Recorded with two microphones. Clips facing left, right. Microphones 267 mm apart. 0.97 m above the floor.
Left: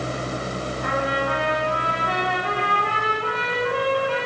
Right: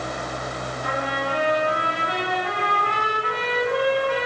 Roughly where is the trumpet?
Left.